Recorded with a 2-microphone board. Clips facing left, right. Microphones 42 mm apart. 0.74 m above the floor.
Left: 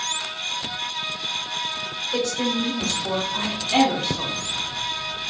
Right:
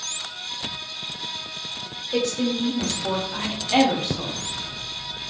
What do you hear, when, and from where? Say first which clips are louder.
2.1 s a woman speaking: right 1 dB; 45° right (ahead or behind), 1.9 m; by 4.3 s 5° right (ahead or behind), 1.2 m